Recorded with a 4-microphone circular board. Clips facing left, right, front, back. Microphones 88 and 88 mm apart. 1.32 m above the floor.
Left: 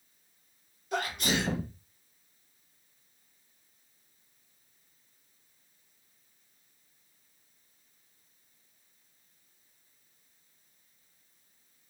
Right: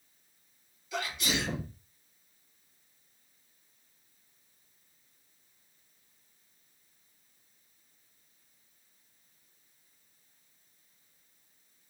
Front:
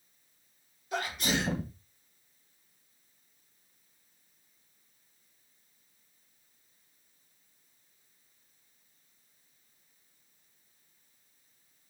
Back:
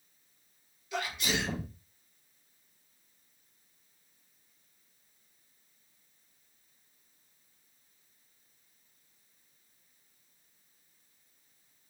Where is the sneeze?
50° left, 1.7 m.